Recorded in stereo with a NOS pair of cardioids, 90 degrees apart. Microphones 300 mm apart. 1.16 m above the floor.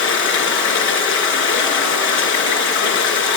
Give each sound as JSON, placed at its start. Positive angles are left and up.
{"t": 0.0, "sound": "running water", "azimuth_deg": 70, "distance_m": 9.5}